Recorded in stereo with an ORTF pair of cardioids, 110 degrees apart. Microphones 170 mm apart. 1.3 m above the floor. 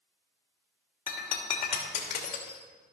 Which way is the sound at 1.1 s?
60° left.